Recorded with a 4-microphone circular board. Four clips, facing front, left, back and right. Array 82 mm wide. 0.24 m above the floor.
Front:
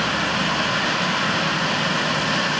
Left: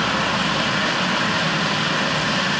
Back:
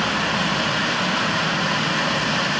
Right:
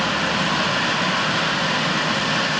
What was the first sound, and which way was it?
Only background noise.